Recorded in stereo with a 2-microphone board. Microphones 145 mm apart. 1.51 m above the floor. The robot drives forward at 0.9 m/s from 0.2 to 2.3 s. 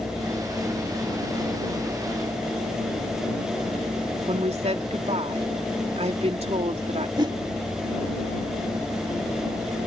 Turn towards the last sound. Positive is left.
turn(degrees=-35)  # may be behind; listen again after turning